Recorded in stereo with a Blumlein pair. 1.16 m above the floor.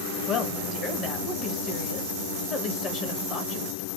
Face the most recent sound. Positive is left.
turn(degrees=30)